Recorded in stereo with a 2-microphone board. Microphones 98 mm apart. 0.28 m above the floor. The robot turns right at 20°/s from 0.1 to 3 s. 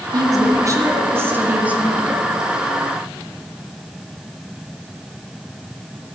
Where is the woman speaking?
50° right, 2.5 m; by 2.2 s 5° right, 2.5 m.